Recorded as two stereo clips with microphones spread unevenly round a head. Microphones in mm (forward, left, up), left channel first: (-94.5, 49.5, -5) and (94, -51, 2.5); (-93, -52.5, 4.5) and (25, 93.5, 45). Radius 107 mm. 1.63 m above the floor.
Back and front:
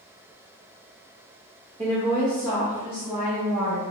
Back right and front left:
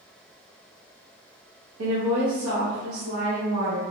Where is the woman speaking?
40° left, 0.7 m; by 3.9 s 50° left, 2.5 m.